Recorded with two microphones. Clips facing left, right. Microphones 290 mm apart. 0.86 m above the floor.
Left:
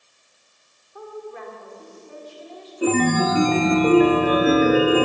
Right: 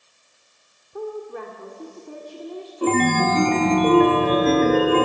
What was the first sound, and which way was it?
A woman speaking, 55° right (ahead or behind).